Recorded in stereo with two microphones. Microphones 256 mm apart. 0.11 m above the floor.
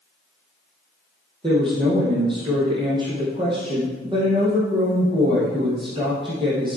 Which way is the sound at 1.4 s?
20° right (ahead or behind).